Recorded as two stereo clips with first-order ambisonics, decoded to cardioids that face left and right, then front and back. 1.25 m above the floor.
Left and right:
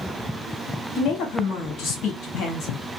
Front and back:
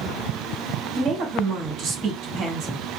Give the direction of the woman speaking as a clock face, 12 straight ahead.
7 o'clock.